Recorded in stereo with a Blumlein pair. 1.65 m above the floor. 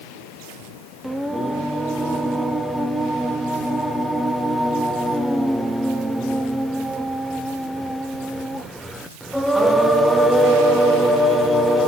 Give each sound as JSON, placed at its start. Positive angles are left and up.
{"t": 1.0, "sound": "singing", "azimuth_deg": 0, "distance_m": 1.4}